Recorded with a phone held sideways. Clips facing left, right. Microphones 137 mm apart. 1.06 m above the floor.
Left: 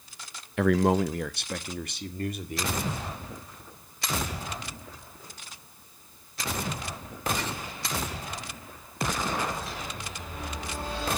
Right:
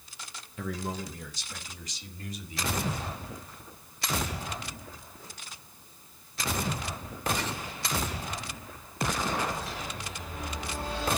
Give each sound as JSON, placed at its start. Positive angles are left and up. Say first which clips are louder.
{"t": 0.6, "sound": "a man speaking", "louder": "left 13 dB", "side_deg": 75, "distance_m": 0.6}